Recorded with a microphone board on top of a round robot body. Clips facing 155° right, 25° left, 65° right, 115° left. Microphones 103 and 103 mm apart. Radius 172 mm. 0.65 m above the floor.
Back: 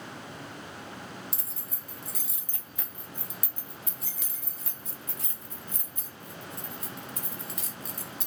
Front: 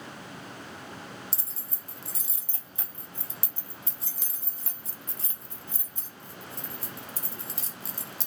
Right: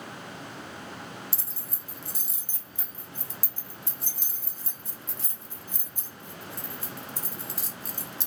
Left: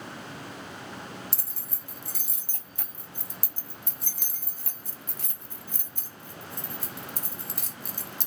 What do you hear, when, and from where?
1.3 s keys jangling: 85° left, 0.5 m